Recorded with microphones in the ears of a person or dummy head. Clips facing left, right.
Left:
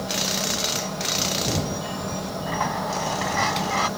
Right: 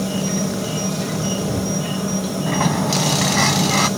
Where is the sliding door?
45° right (ahead or behind).